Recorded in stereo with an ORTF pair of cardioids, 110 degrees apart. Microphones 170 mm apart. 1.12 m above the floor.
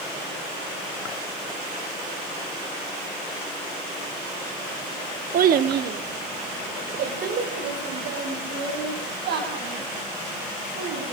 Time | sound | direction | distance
5.3 | a child speaking | 50° right | 1.1 m